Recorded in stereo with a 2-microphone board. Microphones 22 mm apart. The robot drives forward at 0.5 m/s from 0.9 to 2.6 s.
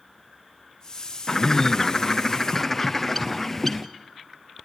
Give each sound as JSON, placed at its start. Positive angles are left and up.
{"t": 1.3, "sound": "a bird", "side_deg": 30, "distance_m": 0.5}